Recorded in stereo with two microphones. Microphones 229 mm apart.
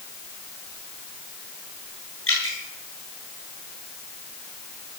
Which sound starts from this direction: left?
Dripping, at 2.3 s.